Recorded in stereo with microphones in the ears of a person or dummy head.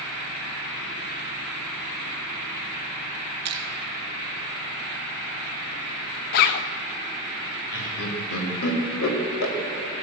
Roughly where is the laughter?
Left.